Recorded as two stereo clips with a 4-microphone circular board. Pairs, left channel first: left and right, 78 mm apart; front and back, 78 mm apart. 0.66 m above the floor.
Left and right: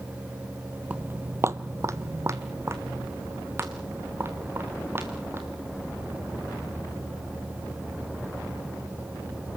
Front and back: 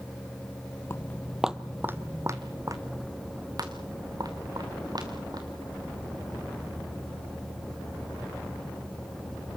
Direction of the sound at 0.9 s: 30° right.